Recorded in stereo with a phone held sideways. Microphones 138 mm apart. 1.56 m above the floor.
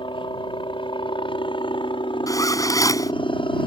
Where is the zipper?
25° left (ahead or behind).